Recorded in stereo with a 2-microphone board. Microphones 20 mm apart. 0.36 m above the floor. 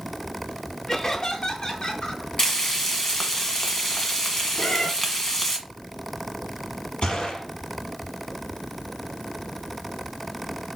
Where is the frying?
20° left (ahead or behind), 1.4 m.